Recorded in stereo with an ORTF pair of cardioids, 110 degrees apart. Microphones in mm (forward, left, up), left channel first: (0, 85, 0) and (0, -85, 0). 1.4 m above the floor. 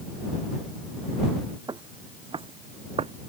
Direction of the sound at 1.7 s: 25° right.